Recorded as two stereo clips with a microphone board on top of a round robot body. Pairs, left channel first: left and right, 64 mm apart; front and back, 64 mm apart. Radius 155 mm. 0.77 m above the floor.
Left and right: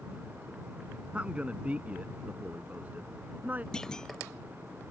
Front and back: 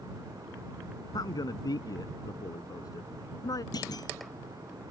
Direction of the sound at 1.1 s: 20° right.